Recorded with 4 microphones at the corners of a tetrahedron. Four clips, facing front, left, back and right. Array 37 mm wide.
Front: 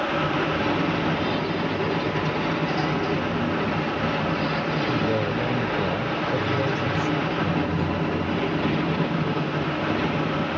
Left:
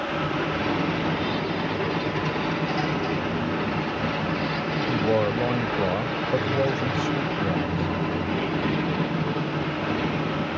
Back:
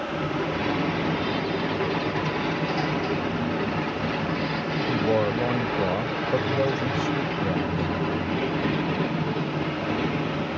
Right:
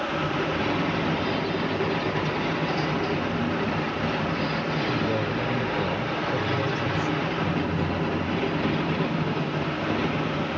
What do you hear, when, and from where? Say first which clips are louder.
4.9 s a man speaking: left 3 dB, back 1 dB; 125° left